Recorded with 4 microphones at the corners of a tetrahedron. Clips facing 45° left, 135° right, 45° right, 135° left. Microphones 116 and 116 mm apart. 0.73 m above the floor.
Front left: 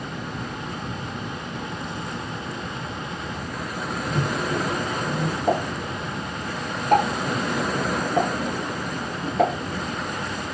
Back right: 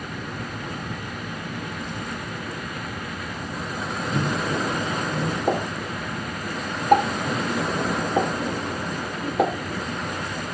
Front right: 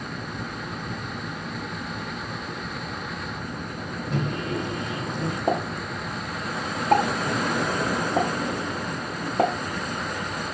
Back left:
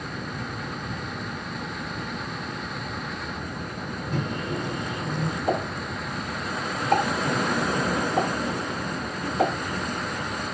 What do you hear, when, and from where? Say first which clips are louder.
4.1 s a microwave: even, front right 2 dB; 50° right, 1.5 m
5.5 s a pop: front left 1 dB, front right 2 dB; 60° right, 1.1 m